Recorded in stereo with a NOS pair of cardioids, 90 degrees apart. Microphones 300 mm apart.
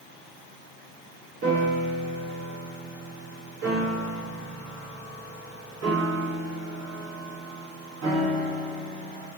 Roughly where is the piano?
Ahead right.